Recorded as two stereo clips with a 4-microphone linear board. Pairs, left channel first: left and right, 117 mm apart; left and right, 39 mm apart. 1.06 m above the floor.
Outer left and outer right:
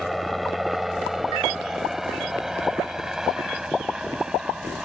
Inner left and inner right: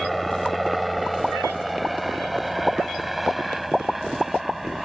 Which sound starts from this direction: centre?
A helicopter, at 0.0 s.